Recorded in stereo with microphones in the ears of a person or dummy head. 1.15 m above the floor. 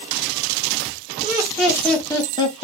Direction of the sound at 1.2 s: 15° right (ahead or behind).